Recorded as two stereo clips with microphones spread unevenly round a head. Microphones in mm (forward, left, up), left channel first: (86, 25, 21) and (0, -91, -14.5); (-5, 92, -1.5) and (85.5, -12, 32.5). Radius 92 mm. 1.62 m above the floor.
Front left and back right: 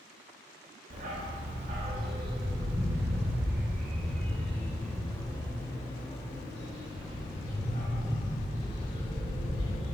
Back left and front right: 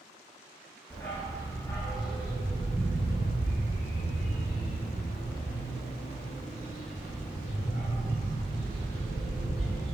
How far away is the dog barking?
About 1.6 m.